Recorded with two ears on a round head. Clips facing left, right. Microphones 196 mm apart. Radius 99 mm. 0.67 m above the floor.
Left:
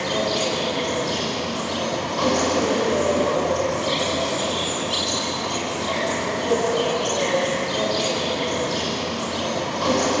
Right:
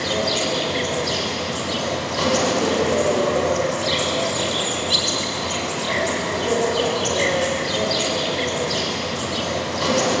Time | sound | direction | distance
0.0 | an insect | 30° right (ahead or behind) | 5 m